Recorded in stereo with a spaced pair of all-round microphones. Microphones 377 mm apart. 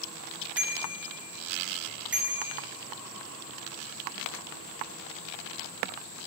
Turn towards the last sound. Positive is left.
turn(degrees=-5)  # may be behind; listen again after turning